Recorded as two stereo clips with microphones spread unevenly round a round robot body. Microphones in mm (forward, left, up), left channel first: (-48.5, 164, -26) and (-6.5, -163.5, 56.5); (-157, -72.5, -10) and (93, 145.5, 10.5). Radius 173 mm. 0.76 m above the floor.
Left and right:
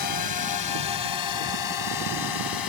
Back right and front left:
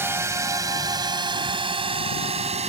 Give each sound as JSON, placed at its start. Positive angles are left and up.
{"t": 0.0, "sound": "a drone", "azimuth_deg": 125}